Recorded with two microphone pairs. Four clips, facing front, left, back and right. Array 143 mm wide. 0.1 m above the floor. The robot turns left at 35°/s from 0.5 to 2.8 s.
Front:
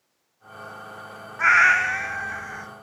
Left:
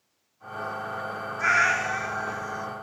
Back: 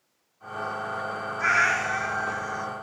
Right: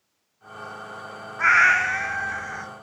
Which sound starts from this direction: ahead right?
A cat meowing, at 1.4 s.